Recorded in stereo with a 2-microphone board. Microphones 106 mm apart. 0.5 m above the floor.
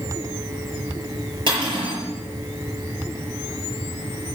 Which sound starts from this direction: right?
Cutlery clinking, at 1.5 s.